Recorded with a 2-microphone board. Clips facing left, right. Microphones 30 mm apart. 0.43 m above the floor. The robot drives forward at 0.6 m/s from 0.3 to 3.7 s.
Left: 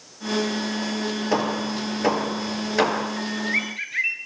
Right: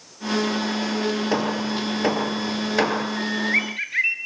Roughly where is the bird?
Centre.